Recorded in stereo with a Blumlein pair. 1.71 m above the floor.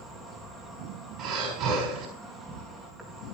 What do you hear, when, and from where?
0.0 s an insect: straight ahead, 3.5 m
1.2 s breathing: 30° right, 6 m